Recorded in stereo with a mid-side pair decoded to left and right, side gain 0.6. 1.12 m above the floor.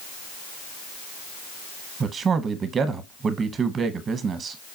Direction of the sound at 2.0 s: 40° right.